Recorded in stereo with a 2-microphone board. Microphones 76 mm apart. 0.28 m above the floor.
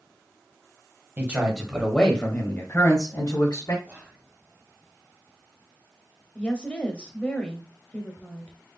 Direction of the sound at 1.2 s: 25° right (ahead or behind).